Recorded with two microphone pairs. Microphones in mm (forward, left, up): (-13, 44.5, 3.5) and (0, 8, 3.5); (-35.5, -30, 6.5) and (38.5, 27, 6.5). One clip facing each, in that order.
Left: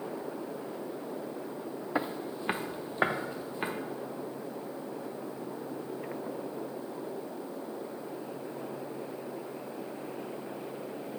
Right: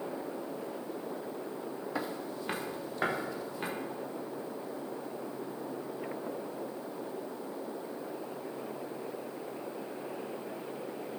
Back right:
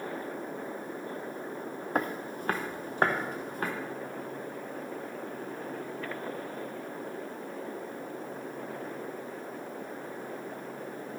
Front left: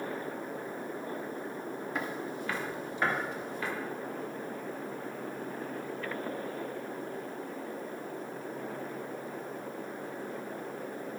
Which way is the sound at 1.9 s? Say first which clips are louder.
Left 5 dB, back right 6 dB; 175° left.